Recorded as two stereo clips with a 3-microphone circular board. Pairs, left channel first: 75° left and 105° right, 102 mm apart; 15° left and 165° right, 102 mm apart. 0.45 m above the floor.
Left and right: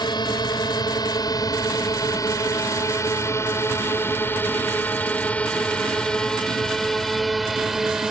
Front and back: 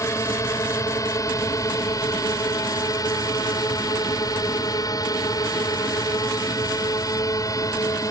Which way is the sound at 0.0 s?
60° left.